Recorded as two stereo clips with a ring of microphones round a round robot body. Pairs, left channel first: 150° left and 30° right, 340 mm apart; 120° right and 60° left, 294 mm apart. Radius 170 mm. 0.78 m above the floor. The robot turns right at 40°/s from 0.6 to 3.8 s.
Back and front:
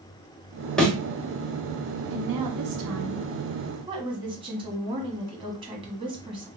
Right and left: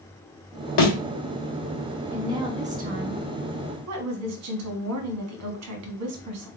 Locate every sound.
0.8 s a thud: 125° right, 1.4 m; by 0.9 s 115° right, 1.4 m
2.1 s a woman speaking: 25° right, 1.3 m; by 6.5 s 45° left, 1.3 m